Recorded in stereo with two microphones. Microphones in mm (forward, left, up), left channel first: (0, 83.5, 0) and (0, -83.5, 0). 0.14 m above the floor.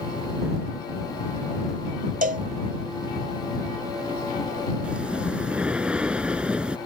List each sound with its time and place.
2.2 s a cowbell: 55° right (ahead or behind)
4.8 s breathing: 5° right (ahead or behind)